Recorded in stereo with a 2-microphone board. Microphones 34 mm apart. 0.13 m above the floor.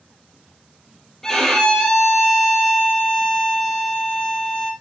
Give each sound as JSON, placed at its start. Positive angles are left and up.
{"t": 1.2, "sound": "a violin", "side_deg": 15, "distance_m": 3.0}